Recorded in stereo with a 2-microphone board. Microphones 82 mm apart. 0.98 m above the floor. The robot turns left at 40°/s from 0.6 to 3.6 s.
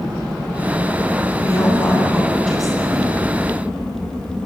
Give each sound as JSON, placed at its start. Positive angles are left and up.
{"t": 1.4, "sound": "a woman speaking", "azimuth_deg": 50, "distance_m": 8.5}